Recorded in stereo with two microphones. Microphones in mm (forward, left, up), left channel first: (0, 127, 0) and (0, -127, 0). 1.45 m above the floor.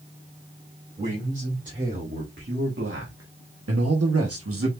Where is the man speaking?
30° right (ahead or behind), 3 m; by 4.7 s 60° right (ahead or behind), 1.3 m.